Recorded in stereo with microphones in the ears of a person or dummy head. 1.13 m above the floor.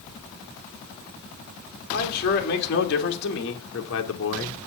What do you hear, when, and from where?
1.9 s a man speaking: 60° left (ahead or behind), 3 m